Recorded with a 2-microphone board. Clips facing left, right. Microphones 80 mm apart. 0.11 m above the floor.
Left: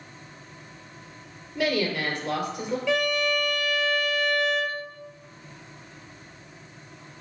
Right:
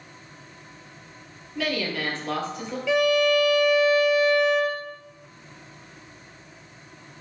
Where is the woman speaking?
20° left (ahead or behind), 2.5 m.